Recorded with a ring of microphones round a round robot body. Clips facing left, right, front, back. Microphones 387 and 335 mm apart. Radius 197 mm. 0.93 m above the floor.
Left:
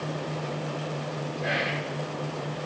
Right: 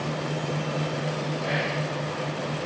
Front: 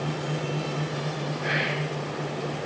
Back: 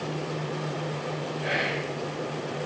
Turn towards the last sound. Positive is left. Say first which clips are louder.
# right 2 dB, back 1 dB
turn(degrees=75)